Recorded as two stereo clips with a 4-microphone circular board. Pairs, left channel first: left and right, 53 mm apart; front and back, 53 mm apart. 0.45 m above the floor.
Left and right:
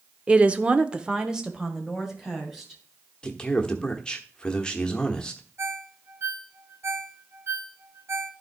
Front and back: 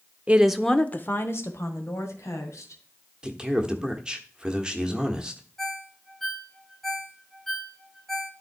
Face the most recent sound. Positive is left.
turn(degrees=-80)